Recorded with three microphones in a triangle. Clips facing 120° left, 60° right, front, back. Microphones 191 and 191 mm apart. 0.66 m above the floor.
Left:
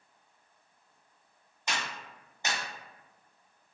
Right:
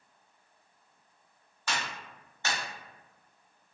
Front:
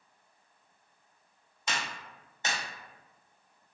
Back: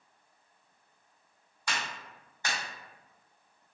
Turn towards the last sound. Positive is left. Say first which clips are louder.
# right 1 dB, front 1 dB
turn(degrees=60)